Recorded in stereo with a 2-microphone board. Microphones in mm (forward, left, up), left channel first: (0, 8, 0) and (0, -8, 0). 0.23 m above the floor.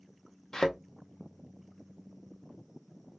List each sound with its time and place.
0.5 s a thud: 45° left (ahead or behind), 1.9 m